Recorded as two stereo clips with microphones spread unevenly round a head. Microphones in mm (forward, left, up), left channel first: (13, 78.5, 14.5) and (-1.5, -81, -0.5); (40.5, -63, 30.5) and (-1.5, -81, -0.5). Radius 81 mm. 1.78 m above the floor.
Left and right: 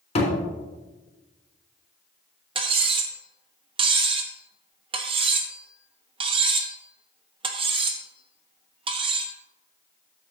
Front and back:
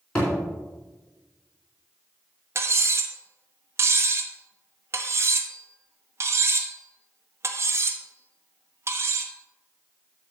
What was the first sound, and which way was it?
A thud, 50° left.